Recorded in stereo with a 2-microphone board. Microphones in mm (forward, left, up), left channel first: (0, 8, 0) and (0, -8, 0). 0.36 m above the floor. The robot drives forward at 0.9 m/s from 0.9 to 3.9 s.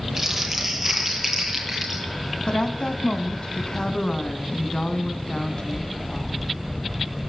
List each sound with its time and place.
0.2 s crumpling: 15° right (ahead or behind), 9 m
2.5 s a woman speaking: 70° left (ahead or behind), 3 m; by 6.5 s 60° left (ahead or behind), 3 m